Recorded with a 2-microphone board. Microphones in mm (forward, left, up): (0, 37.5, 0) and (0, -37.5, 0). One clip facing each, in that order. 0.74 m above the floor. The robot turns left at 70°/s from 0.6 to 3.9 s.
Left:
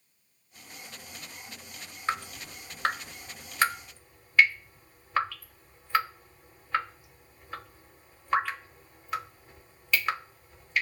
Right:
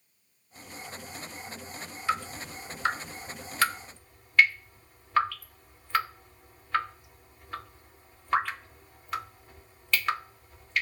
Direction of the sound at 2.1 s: 40° left (ahead or behind).